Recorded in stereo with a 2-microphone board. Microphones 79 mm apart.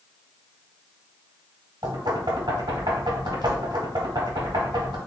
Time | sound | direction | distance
1.8 | knocking | 75° right (ahead or behind) | 1.4 m